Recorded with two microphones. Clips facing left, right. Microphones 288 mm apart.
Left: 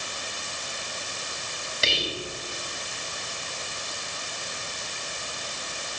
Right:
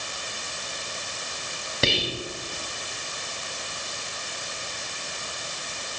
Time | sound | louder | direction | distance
1.8 | whispering | right 4 dB | 60° right (ahead or behind) | 1.9 m